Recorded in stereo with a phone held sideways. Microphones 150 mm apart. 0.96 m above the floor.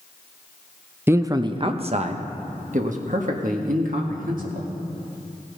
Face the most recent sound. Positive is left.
turn(degrees=-65)  # may be behind; listen again after turning